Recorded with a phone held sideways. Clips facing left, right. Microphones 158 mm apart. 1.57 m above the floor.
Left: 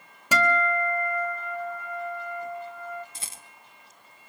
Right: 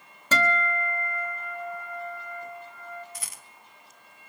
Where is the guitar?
10° left (ahead or behind), 1.8 m.